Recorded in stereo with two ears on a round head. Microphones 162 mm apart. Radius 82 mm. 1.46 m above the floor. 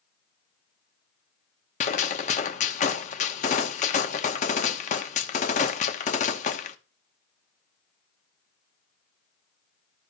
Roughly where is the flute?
I don't hear a flute.